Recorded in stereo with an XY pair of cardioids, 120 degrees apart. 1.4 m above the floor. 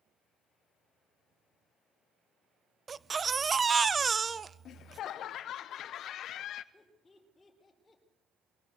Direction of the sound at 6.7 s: 25° left.